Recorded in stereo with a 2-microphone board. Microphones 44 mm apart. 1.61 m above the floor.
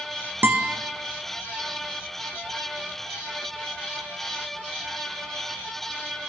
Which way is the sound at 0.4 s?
50° right (ahead or behind).